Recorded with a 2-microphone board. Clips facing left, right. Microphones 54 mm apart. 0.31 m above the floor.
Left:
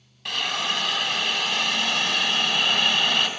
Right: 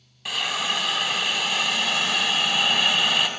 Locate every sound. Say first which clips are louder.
0.2 s a hiss: even; 5° right (ahead or behind), 0.9 m